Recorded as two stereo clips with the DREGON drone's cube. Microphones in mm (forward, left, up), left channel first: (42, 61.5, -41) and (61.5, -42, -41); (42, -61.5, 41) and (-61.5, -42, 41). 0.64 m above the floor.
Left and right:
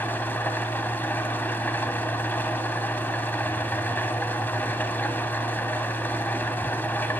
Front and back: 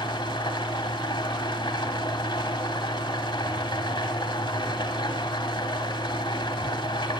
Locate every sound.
0.0 s an engine running: 30° left, 1.0 m